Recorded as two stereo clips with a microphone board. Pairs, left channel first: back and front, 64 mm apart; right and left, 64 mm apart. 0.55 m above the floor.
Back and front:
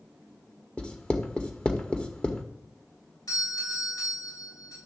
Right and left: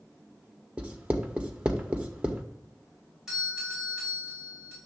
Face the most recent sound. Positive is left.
turn(degrees=175)